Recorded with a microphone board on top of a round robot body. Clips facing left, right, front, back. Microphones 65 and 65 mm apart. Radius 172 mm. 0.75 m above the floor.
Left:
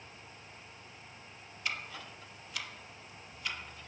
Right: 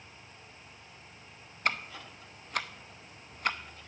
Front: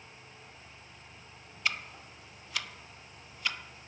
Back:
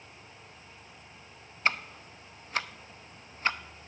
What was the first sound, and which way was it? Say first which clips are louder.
Ticking: right 6 dB, back 5 dB; 125° right.